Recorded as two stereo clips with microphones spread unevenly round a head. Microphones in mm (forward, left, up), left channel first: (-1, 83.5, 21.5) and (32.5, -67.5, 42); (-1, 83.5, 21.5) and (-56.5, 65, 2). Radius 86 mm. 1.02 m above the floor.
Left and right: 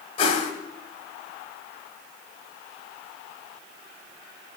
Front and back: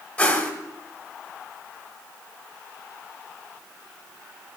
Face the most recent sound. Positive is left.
turn(degrees=50)